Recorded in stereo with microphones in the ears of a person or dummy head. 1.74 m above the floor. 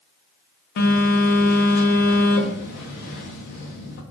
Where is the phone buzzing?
45° left (ahead or behind), 0.5 m.